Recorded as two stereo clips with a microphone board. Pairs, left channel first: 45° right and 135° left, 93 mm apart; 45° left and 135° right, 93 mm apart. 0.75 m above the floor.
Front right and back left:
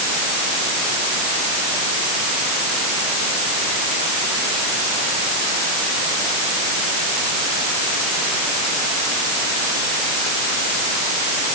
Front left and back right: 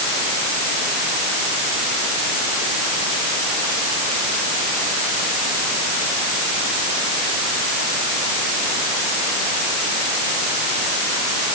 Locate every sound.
Only background noise.